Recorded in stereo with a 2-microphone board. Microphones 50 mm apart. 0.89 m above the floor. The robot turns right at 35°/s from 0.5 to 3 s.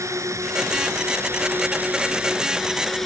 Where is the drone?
80° right; by 3.1 s 5° left.